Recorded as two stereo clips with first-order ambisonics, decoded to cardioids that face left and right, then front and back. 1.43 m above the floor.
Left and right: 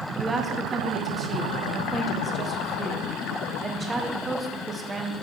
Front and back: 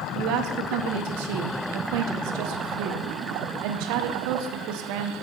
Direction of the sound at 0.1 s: 160° right.